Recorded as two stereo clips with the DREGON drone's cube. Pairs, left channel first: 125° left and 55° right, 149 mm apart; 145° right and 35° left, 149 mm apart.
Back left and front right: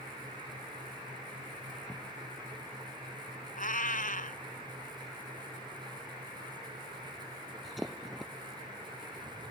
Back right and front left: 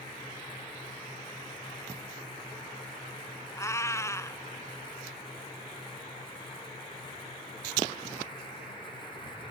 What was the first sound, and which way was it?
A cat meowing, 145° left.